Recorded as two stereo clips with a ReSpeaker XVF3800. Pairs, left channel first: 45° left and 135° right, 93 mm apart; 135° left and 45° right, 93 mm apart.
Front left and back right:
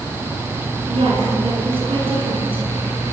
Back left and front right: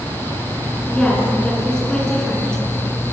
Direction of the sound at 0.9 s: 140° right.